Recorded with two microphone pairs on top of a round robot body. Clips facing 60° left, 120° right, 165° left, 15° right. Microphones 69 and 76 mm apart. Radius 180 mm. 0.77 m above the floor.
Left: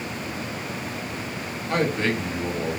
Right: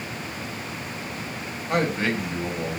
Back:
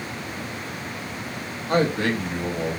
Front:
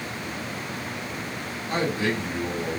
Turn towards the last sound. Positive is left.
turn(degrees=155)